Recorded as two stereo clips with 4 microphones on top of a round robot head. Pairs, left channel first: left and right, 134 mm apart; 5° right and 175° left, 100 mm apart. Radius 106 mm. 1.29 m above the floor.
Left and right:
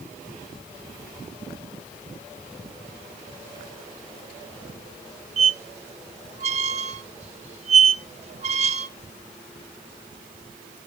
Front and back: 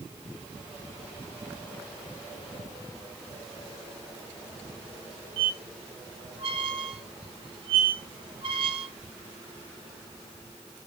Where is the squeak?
130° right, 0.5 m.